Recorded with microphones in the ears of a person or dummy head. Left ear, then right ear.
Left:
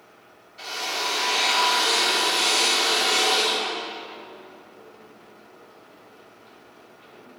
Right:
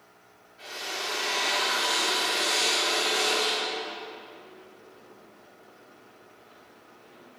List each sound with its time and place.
0.6 s a drill: 55° left (ahead or behind), 2.5 m